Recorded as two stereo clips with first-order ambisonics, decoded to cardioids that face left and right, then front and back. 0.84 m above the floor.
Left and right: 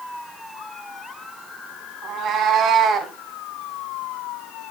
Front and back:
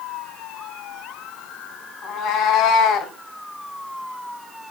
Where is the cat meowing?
40° right, 1.5 m; by 3.1 s 35° right, 0.9 m.